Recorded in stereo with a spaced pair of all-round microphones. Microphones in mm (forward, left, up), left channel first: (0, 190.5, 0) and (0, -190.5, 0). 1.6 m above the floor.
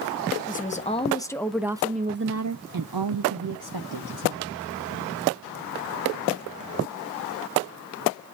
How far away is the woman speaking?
About 1.2 m.